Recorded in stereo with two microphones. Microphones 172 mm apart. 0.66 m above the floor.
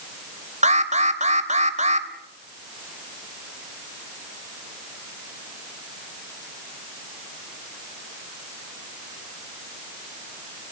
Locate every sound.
0.6 s an alarm: 45° right (ahead or behind), 3 m